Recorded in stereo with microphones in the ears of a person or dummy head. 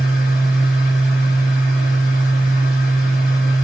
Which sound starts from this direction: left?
A machine running, at 0.0 s.